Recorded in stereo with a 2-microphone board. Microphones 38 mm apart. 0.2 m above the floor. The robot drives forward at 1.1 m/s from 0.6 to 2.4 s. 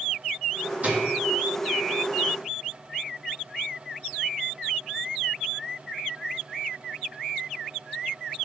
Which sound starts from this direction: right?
A microwave, at 0.8 s.